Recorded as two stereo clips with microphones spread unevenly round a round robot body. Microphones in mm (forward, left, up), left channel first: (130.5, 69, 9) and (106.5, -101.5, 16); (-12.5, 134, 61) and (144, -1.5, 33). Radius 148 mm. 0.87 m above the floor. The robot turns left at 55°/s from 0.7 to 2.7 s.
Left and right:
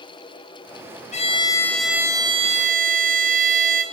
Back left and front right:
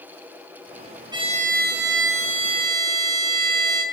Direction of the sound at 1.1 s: 30° left.